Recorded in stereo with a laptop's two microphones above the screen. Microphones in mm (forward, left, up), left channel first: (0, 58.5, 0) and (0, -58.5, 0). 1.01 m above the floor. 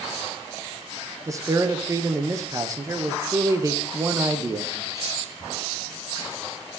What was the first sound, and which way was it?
A man speaking, 25° right (ahead or behind).